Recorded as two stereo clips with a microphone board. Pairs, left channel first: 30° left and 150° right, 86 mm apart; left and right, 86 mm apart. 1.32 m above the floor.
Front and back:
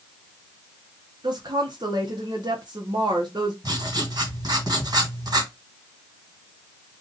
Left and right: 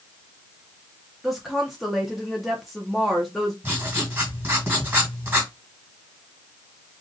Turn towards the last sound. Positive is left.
turn(degrees=-150)